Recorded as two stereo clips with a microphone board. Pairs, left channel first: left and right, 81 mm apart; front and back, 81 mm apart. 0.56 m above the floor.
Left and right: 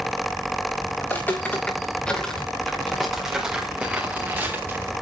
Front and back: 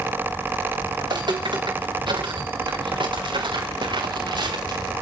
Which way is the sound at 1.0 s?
155° left.